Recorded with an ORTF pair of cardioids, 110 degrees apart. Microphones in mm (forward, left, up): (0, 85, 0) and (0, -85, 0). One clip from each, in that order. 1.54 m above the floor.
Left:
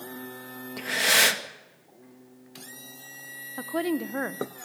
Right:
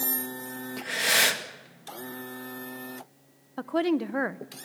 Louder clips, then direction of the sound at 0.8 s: Left 2 dB; 20° left.